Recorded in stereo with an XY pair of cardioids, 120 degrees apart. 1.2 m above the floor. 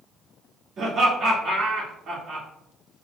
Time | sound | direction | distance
0.8 | laughter | 55° right | 2.5 m